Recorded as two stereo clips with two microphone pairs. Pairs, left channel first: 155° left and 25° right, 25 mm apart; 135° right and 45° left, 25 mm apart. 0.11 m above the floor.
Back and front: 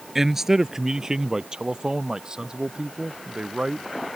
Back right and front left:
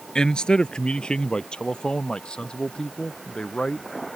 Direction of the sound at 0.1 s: 100° right.